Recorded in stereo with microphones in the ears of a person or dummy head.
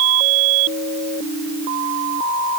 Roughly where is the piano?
I don't hear a piano.